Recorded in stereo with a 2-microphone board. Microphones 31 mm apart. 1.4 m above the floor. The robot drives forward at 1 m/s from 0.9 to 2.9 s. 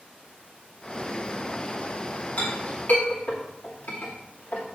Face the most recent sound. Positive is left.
turn(degrees=55)  # may be behind; listen again after turning